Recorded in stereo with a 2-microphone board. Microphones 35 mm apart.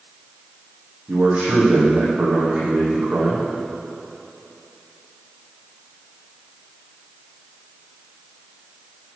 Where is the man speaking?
40° right (ahead or behind), 5 m.